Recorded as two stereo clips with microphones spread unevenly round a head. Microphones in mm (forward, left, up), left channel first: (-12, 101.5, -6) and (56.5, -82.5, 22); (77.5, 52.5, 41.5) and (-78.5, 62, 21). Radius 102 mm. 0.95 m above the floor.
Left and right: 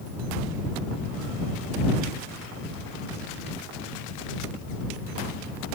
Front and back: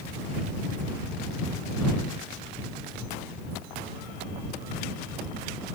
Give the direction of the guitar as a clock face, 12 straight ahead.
I don't hear a guitar.